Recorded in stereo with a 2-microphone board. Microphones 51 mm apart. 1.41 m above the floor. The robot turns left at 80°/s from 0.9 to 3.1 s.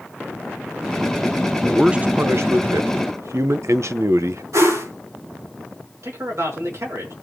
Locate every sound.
1.6 s a man speaking: straight ahead, 0.9 m; by 4.4 s 120° right, 0.9 m
4.5 s a whoosh: 80° right, 8.5 m
6.0 s a man speaking: 65° right (ahead or behind), 5 m